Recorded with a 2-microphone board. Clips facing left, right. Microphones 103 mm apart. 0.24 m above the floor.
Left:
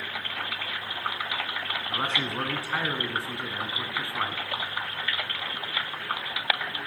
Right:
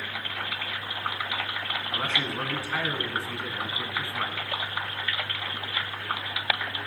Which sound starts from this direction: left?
A man speaking, at 1.9 s.